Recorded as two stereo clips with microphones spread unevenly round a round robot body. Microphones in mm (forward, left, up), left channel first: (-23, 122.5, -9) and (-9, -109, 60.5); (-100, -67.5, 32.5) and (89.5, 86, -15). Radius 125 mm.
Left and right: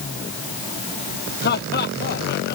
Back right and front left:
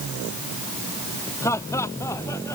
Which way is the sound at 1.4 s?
140° left.